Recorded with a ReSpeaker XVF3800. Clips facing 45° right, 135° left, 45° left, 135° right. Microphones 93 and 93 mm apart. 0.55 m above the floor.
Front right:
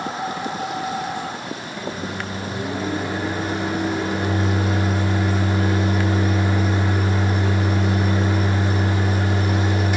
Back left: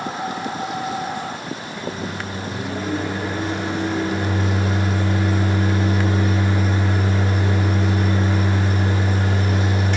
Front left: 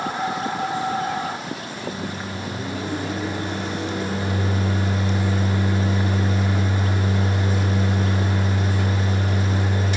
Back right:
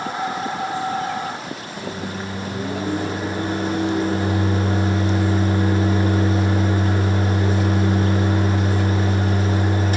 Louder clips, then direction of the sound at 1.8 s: Even, back right 3 dB; 125° right.